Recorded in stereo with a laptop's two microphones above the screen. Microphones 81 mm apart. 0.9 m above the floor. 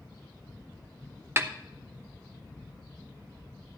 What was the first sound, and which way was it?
A snare drum, 30° right (ahead or behind).